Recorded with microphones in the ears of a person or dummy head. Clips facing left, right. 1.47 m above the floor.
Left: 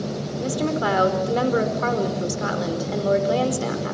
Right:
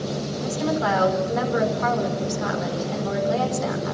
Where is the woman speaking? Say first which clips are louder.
Left 1 dB; 35° left (ahead or behind), 5 m.